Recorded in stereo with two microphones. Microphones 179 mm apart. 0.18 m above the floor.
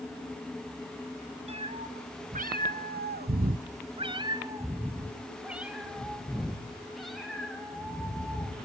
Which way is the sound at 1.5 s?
35° right (ahead or behind).